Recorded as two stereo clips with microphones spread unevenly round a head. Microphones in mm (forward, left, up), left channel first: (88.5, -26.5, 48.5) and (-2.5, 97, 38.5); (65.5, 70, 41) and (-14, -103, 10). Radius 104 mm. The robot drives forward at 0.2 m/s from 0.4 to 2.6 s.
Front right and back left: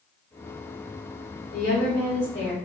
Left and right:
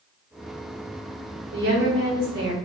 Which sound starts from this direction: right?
A woman speaking, at 1.5 s.